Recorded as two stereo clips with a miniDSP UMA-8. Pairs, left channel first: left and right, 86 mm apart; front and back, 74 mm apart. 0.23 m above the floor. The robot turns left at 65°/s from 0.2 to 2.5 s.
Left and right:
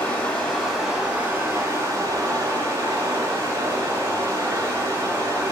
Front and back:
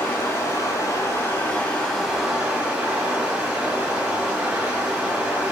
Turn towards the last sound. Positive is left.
turn(degrees=-115)